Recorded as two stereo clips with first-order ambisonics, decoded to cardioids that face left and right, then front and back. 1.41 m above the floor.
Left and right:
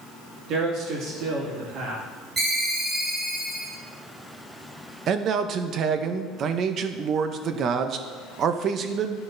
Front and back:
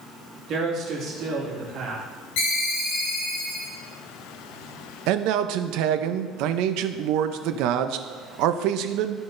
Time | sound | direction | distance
0.5 | a man speaking | 130° right | 1.9 m
2.4 | a ringtone | 20° right | 3 m
5.1 | a man speaking | 150° right | 0.5 m